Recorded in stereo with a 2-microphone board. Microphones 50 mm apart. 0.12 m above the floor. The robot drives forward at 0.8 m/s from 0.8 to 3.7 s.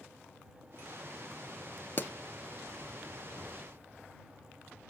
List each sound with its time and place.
2.0 s a pop: 40° left (ahead or behind), 0.7 m; by 2.1 s 45° left (ahead or behind), 0.6 m